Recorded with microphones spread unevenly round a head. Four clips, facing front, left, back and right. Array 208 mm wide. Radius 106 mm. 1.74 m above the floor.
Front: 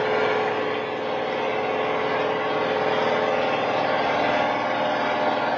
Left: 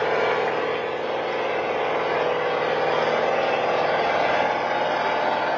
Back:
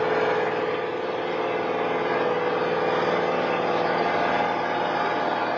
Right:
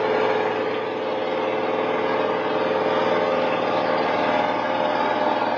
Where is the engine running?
85° right, 2.5 m.